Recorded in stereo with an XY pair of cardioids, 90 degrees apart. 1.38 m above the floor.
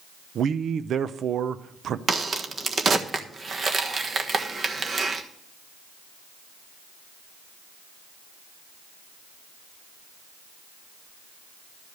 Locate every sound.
0.3 s a man speaking: 65° right, 0.6 m
2.1 s a crack: 45° right, 1.4 m